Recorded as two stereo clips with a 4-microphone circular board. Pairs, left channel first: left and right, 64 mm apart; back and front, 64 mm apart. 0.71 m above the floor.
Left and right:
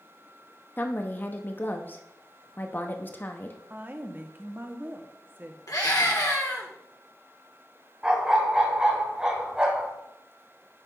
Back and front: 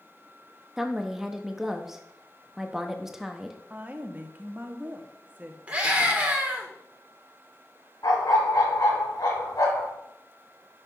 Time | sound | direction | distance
0.8 | a woman speaking | 80° left | 0.6 m
3.7 | a woman speaking | 50° right | 0.8 m
5.7 | a scream | 70° left | 1.7 m
8.0 | a dog barking | 165° right | 1.7 m